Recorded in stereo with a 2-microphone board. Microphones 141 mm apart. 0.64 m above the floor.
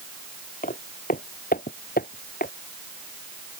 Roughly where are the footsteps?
Left.